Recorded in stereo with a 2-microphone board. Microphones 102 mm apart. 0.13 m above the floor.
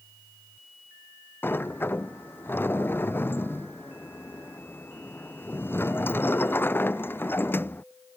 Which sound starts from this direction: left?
A sliding door, at 1.4 s.